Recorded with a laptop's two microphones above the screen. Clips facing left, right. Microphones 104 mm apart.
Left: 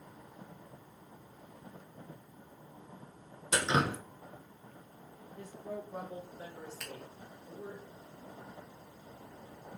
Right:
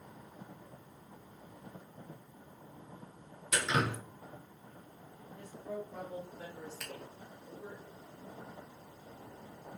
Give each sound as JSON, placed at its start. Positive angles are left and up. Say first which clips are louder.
{"t": 3.5, "sound": "dripping", "louder": "left 2 dB", "side_deg": 30, "distance_m": 0.7}
{"t": 5.4, "sound": "a woman speaking", "louder": "even", "side_deg": 15, "distance_m": 1.4}
{"t": 6.8, "sound": "a finger snap", "louder": "even", "side_deg": -5, "distance_m": 0.8}